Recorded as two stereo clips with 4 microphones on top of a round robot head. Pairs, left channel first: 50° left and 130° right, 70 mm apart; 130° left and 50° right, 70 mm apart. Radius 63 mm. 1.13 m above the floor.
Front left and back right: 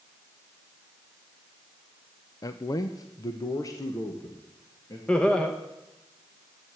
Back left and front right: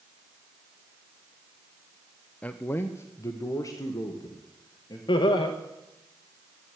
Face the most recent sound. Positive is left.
turn(degrees=125)